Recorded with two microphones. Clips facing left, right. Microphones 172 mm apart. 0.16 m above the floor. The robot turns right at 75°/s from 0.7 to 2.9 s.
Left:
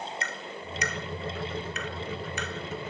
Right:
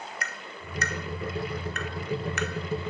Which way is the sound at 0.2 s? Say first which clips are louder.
Left 3 dB; 25° left (ahead or behind).